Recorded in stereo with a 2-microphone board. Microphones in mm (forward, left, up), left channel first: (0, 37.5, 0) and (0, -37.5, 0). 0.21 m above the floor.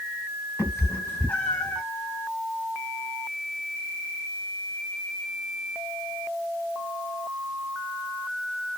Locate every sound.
0.6 s a cat meowing: 35° left (ahead or behind), 0.8 m; by 1.8 s 15° left (ahead or behind), 0.9 m